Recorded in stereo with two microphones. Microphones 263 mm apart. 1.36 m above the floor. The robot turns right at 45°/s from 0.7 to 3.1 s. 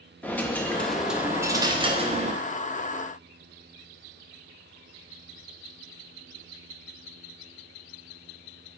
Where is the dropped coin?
170° left, 0.7 m; by 2.4 s 115° right, 0.7 m.